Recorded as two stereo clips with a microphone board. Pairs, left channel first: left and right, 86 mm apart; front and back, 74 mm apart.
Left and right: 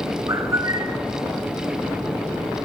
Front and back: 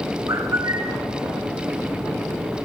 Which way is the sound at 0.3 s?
140° right.